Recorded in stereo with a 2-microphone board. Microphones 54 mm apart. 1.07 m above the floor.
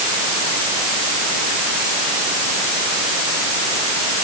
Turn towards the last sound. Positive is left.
No sound to turn to.